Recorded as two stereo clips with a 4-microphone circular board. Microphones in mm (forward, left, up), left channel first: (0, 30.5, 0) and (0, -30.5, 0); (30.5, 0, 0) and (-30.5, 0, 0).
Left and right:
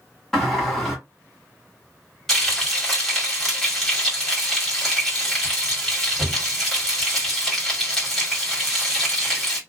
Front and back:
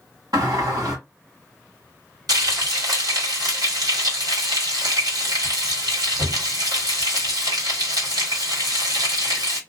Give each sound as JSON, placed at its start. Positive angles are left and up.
{"t": 0.3, "sound": "a sliding door", "azimuth_deg": 180, "distance_m": 1.8}
{"t": 2.3, "sound": "frying", "azimuth_deg": 175, "distance_m": 1.5}